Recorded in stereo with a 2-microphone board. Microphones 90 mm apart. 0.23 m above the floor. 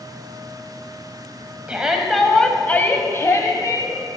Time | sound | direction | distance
1.7 | a shout | 15° right (ahead or behind) | 1.0 m